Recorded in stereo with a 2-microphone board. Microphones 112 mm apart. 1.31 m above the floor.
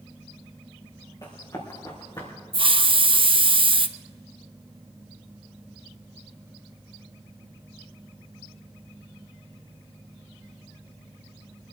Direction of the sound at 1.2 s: 35° left (ahead or behind).